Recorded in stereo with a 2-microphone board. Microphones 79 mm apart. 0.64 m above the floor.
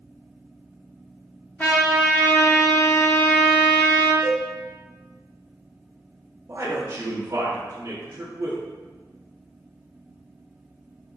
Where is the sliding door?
No sliding door in this recording.